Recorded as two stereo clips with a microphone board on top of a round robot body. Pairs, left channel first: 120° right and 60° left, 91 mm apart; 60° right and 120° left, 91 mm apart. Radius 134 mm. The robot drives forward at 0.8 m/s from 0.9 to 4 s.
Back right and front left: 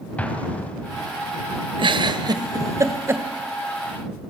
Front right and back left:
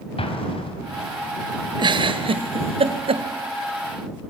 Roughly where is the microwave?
I don't hear a microwave.